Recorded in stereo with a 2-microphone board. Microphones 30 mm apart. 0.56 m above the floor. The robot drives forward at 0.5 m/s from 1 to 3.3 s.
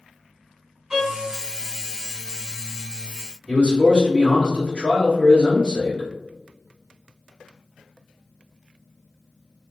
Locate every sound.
0.9 s a violin: 30° right (ahead or behind), 1.3 m
3.5 s a man speaking: 35° left (ahead or behind), 1.8 m